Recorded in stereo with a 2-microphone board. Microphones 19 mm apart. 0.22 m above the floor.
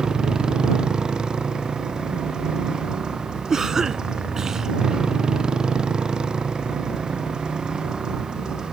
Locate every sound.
0.0 s a motorcycle: 45° right (ahead or behind)
3.5 s a cough: 35° right (ahead or behind)